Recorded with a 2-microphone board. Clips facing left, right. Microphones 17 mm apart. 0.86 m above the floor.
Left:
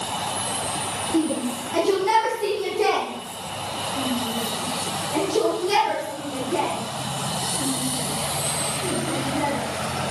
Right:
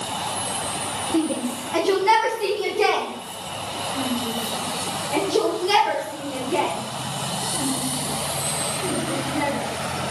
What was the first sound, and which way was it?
A shout, 20° right (ahead or behind).